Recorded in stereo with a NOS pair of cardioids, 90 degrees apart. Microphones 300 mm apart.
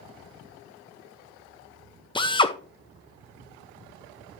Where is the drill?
15° left, 1.2 m.